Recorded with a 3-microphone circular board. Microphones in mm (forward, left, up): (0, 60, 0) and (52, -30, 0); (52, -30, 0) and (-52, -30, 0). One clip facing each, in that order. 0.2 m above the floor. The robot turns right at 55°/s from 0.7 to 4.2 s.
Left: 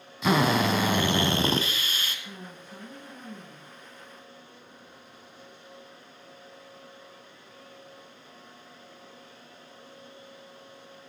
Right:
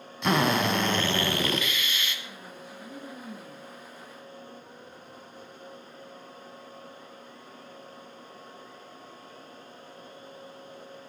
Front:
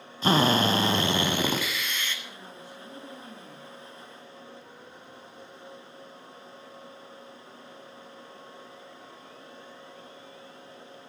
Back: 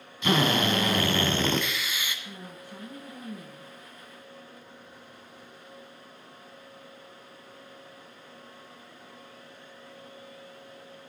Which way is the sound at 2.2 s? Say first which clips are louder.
Even, back 1 dB; 145° left.